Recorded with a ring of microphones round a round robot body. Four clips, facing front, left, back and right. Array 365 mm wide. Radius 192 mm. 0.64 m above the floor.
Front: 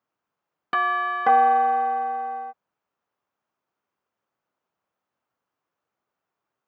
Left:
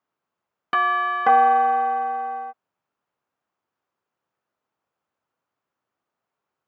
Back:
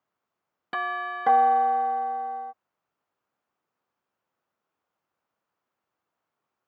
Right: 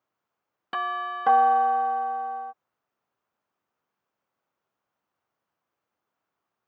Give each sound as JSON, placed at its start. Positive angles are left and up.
{"t": 0.7, "sound": "a doorbell", "azimuth_deg": 60}